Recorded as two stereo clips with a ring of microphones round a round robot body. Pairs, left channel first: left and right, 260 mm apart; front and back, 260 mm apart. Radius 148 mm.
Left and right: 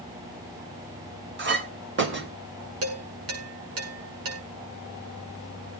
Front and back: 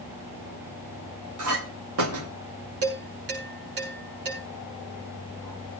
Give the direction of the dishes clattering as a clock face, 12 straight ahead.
4 o'clock.